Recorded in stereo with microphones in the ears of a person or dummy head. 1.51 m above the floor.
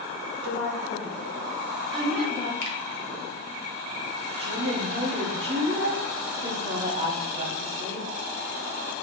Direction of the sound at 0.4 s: 70° left (ahead or behind).